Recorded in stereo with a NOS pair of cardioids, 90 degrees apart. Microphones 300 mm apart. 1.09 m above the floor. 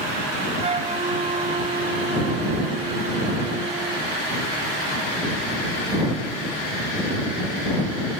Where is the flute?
25° right.